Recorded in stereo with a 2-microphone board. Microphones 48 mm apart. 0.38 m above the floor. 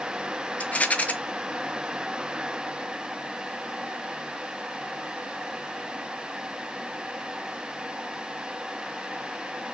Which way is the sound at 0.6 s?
30° left (ahead or behind).